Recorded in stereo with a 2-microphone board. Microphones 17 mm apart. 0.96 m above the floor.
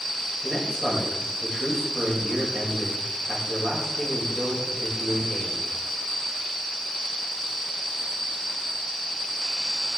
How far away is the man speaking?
About 5 m.